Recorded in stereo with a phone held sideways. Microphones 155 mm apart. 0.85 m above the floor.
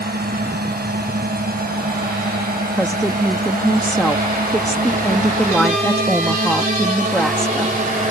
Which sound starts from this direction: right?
A drone, at 0.0 s.